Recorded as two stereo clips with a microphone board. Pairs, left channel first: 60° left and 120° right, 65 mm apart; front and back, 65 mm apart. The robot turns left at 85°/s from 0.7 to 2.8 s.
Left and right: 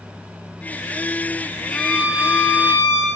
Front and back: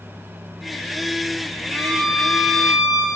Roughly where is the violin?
Ahead right.